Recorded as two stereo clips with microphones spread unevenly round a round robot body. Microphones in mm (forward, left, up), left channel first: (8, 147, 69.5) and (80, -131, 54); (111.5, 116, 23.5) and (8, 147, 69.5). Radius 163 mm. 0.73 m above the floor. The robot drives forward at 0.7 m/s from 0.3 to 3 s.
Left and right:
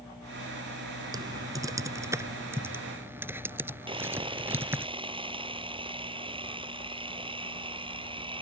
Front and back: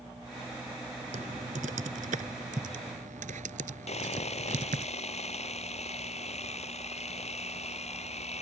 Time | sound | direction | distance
1.1 | typing on a keyboard | 155° right | ?
3.9 | sawing | straight ahead | ?